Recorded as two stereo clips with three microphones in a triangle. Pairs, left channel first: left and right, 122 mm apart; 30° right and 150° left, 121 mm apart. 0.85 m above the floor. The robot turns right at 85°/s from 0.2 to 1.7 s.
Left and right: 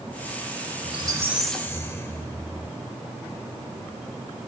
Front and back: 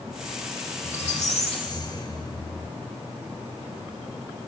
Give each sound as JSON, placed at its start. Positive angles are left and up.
{"t": 0.8, "sound": "a squeak", "azimuth_deg": -55, "distance_m": 1.1}